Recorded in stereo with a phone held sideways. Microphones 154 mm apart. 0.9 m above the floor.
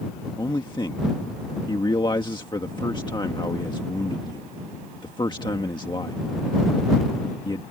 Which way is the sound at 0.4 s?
30° left (ahead or behind).